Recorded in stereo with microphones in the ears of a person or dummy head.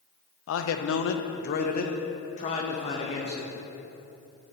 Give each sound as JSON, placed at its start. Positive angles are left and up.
{"t": 0.5, "sound": "a man speaking", "side_deg": 75, "distance_m": 0.8}